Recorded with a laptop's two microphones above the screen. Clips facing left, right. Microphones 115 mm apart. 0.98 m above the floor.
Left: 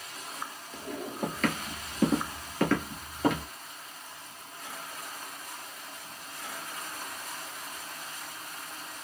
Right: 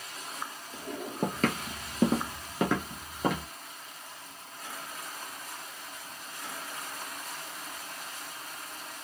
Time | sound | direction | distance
1.2 | footsteps | 45° right (ahead or behind) | 1.3 m